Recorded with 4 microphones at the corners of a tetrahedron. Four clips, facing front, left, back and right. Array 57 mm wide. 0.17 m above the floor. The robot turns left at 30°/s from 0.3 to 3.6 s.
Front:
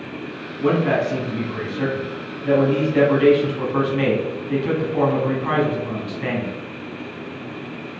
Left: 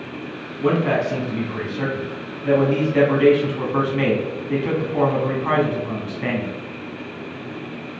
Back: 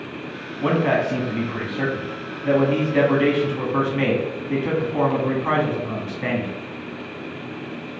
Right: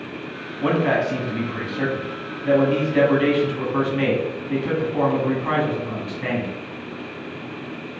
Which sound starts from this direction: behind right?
A man speaking, at 0.6 s.